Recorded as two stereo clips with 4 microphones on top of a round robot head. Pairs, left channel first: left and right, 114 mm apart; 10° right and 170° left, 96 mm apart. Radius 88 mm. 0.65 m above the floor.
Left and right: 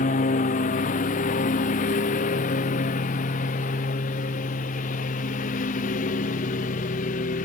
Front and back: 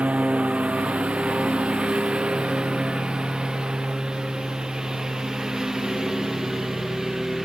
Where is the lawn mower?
90° left; by 7.5 s 85° left.